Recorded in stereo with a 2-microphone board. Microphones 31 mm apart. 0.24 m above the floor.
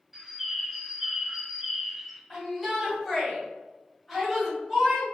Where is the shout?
5° right (ahead or behind), 1.7 m.